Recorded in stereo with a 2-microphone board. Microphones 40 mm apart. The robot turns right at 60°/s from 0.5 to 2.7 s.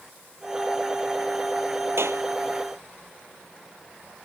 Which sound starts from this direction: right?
A clap, at 2.0 s.